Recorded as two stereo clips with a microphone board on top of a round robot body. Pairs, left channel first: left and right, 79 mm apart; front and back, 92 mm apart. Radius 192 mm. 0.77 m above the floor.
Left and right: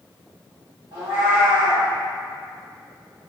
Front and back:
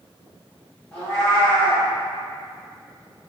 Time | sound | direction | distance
0.9 | a cat meowing | 70° right | 1.6 m